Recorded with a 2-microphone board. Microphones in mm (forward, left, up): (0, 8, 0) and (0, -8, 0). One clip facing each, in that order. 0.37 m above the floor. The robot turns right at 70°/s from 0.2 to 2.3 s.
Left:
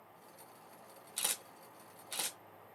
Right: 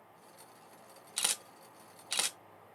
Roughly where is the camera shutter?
Right.